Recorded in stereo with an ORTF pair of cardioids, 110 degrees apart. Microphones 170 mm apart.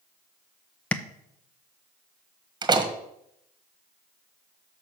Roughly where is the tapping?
Ahead.